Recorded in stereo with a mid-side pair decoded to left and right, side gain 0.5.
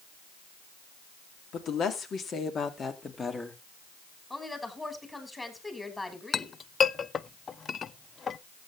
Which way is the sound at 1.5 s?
60° left.